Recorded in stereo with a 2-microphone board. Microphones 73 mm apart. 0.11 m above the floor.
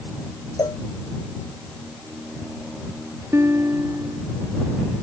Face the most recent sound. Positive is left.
turn(degrees=-45)  # may be behind; listen again after turning